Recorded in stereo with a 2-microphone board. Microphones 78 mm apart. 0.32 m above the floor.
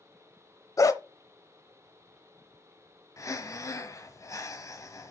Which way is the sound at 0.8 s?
45° left (ahead or behind).